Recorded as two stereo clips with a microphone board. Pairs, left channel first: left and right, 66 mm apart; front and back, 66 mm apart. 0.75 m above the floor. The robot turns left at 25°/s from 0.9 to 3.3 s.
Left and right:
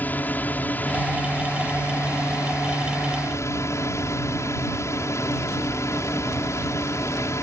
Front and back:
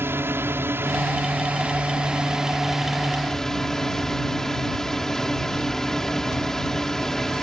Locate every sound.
0.0 s a drone: 140° left; by 7.4 s 80° left